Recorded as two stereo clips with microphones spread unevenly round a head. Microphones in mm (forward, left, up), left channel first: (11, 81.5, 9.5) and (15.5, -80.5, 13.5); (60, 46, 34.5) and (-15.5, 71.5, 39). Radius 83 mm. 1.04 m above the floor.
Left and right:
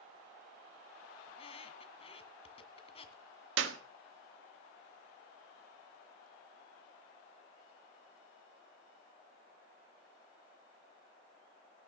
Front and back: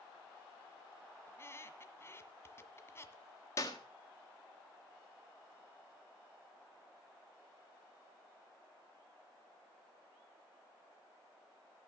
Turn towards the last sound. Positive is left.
turn(degrees=-85)